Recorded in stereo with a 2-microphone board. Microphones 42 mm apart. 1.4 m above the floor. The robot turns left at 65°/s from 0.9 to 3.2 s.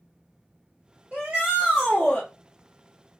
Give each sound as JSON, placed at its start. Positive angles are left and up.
{"t": 1.1, "sound": "a shout", "azimuth_deg": -135, "distance_m": 1.2}